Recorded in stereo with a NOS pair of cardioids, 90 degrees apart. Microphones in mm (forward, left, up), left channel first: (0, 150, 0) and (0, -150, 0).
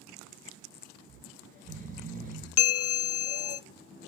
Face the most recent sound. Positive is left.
turn(degrees=50)